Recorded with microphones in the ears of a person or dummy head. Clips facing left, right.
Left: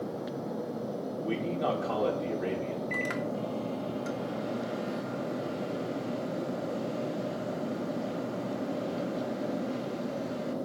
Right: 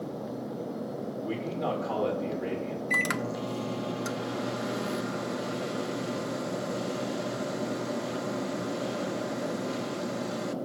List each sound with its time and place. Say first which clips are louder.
1.2 s a man speaking: left 2 dB; 15° left (ahead or behind), 1.6 m
2.9 s a microwave: even; 75° right (ahead or behind), 0.6 m